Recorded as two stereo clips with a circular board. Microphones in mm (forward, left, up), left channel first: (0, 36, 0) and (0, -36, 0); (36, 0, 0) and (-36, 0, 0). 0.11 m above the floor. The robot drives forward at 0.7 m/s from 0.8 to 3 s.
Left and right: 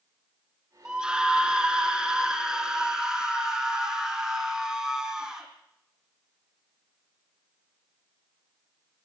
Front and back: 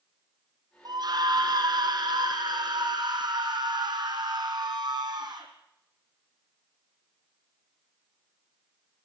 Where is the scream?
170° right, 4 m.